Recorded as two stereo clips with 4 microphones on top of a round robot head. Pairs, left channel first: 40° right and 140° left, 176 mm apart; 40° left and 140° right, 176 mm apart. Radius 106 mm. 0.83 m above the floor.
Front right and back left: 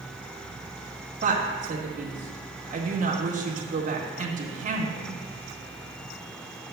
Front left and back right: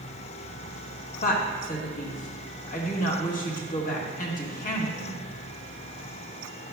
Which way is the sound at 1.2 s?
90° left.